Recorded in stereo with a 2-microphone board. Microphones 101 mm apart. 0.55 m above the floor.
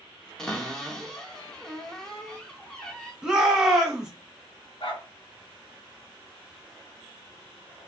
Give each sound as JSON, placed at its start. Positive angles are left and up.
{"t": 0.4, "sound": "a cupboard door", "side_deg": 5, "distance_m": 0.6}
{"t": 3.2, "sound": "a shout", "side_deg": -5, "distance_m": 0.9}
{"t": 4.8, "sound": "a dog barking", "side_deg": 60, "distance_m": 1.1}